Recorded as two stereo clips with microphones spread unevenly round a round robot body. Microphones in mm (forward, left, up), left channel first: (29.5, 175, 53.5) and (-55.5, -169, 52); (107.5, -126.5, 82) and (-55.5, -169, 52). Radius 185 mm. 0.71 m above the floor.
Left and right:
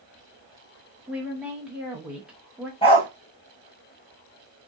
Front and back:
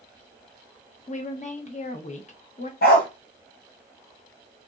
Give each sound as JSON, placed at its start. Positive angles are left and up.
{"t": 1.1, "sound": "a woman speaking", "azimuth_deg": -20, "distance_m": 1.0}
{"t": 2.8, "sound": "a dog barking", "azimuth_deg": 0, "distance_m": 0.8}